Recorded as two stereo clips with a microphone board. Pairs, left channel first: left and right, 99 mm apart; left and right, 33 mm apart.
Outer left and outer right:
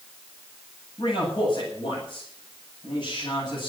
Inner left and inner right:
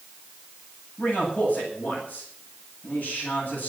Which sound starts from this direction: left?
A man speaking, at 1.0 s.